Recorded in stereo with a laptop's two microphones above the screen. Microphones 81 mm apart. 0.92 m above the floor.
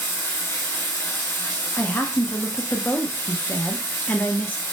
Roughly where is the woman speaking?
Left.